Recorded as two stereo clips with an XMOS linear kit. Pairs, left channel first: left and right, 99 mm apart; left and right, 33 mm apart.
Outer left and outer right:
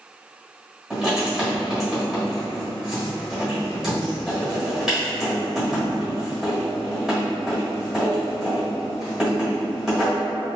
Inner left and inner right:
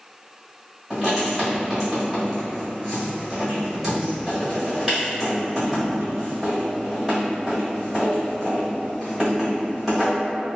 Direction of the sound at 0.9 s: 5° right (ahead or behind).